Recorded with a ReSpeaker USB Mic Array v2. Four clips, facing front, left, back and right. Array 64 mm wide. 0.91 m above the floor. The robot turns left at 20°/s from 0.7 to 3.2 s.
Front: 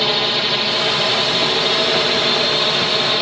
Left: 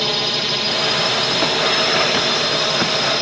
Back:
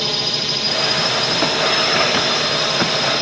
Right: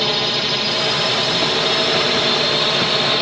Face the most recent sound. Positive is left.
turn(degrees=-40)